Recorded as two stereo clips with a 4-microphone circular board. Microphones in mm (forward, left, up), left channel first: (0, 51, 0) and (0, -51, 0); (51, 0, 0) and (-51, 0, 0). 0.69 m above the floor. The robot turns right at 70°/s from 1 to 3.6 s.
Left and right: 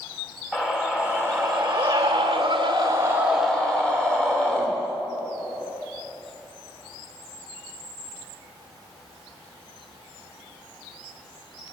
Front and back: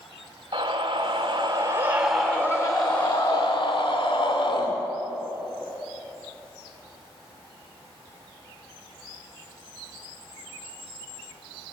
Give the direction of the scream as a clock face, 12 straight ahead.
6 o'clock.